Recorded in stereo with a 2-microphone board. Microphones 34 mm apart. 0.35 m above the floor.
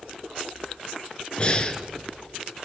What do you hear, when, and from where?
1.4 s breathing: 30° left (ahead or behind), 1.2 m